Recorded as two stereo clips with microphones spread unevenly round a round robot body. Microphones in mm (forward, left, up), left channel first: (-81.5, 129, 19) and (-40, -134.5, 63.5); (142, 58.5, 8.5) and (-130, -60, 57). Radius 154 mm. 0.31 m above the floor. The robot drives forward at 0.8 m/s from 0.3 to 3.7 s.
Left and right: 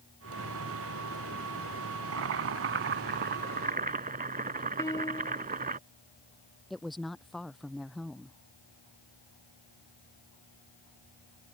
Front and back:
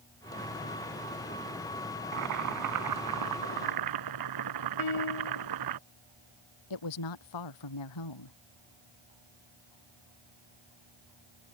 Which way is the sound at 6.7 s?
10° left.